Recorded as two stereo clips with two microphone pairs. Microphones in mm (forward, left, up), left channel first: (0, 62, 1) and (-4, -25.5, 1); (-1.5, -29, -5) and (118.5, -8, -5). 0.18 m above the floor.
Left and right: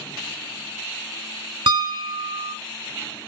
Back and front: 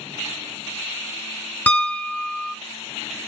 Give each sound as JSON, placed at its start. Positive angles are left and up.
{"t": 1.7, "sound": "a piano", "azimuth_deg": -90, "distance_m": 0.6}